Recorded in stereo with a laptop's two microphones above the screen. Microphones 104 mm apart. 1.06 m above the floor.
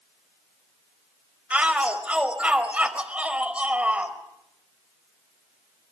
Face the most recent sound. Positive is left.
turn(degrees=-10)  # may be behind; listen again after turning